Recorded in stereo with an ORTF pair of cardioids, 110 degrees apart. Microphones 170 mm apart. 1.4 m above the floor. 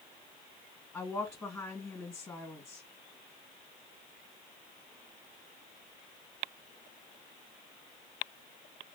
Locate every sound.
0.9 s a woman speaking: 20° left, 2.5 m